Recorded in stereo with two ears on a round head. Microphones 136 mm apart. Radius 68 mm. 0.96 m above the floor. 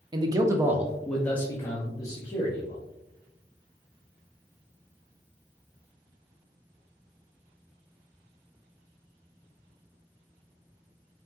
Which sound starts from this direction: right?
A man speaking, at 0.1 s.